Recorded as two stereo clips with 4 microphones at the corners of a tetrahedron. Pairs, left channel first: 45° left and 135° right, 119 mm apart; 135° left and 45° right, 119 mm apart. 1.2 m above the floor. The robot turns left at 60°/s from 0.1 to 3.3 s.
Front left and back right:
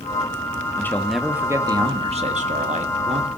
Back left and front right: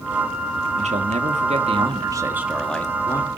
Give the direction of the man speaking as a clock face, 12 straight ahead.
1 o'clock.